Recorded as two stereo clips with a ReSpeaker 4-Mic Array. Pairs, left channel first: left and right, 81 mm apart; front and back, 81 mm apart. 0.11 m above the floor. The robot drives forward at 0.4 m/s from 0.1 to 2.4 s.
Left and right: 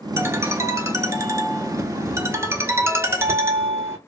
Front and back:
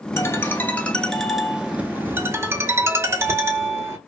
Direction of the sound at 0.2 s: 45° right.